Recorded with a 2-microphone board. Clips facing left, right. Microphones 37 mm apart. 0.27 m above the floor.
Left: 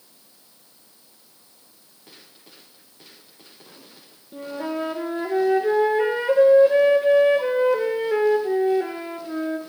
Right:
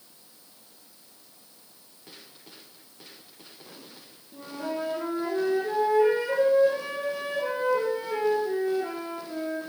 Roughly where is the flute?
Left.